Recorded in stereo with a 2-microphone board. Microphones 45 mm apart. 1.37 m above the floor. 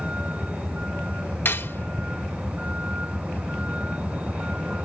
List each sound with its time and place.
0.0 s a vehicle: 30° right (ahead or behind)
1.4 s cutlery clinking: 55° left (ahead or behind)